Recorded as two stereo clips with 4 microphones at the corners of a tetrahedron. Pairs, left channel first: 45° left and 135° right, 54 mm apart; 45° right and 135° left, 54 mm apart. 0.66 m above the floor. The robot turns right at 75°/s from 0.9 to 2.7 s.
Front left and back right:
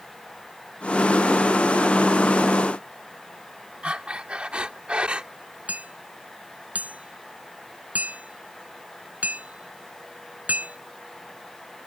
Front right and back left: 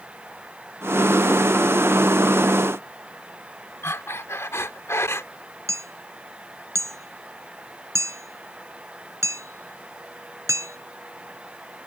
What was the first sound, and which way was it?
Breathing, 65° right.